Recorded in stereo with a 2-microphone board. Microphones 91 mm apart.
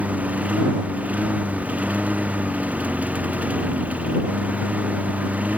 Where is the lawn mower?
15° right (ahead or behind).